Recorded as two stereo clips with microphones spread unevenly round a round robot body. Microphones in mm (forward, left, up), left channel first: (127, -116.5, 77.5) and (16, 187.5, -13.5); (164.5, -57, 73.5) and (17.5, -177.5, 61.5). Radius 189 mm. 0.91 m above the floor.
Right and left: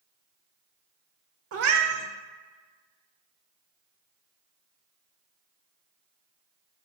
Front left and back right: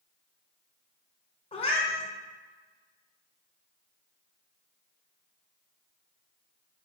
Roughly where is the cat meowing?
Left.